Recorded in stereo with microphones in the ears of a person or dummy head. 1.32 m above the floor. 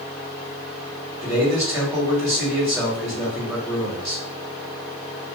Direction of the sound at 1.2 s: 15° right (ahead or behind).